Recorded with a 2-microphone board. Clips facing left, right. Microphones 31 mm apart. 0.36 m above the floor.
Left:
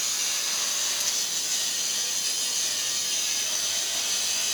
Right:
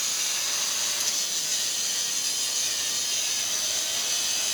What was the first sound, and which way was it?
Only background noise.